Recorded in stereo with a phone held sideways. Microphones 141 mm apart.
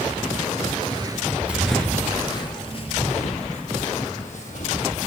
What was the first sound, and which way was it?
Footsteps, 40° right (ahead or behind).